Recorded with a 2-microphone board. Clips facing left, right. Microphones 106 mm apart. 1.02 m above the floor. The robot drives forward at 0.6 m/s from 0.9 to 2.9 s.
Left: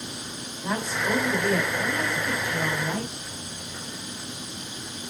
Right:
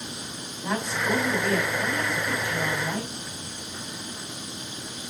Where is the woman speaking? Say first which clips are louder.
Even; centre (ahead or behind), 4 m.